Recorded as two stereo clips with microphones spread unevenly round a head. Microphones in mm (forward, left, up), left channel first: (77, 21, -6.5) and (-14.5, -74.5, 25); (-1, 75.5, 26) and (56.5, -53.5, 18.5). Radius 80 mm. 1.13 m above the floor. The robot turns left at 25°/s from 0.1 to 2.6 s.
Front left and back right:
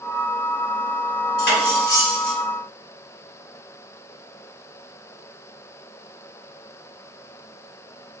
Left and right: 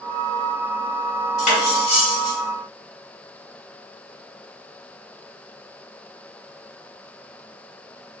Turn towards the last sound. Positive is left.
turn(degrees=45)